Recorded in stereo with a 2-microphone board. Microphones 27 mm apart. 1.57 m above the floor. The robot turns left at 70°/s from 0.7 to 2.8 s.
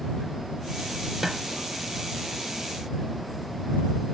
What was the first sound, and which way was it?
A snare drum, 15° right (ahead or behind).